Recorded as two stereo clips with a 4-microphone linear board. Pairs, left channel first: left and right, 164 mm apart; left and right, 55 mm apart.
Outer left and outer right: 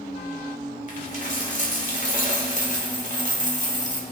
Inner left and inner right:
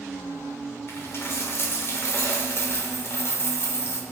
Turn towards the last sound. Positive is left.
turn(degrees=45)  # may be behind; listen again after turning